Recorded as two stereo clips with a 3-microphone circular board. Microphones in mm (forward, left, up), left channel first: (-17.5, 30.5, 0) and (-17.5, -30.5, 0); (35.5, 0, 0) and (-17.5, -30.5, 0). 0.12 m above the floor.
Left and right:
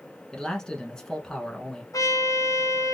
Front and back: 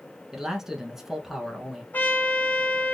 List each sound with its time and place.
0.3 s a man speaking: 145° left, 1.1 m
1.9 s a trumpet: 85° left, 0.8 m